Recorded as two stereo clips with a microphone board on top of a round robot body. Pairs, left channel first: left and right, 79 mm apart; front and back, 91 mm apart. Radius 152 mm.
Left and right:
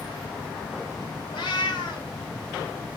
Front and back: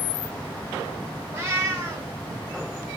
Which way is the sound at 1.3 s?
115° left.